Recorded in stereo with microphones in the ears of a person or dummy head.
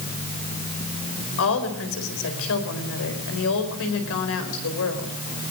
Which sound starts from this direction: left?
A woman speaking, at 1.4 s.